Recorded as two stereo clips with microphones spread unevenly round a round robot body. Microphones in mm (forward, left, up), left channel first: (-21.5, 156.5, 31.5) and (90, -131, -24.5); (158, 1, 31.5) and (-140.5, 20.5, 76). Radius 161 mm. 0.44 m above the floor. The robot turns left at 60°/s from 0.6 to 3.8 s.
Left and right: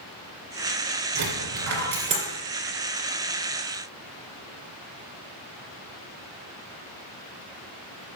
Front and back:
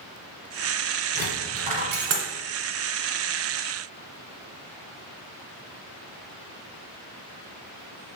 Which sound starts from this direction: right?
A dropped coin, at 1.1 s.